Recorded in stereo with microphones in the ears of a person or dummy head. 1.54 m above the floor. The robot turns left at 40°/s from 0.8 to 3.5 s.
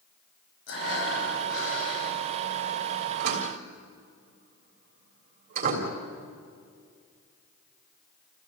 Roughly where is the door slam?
Right.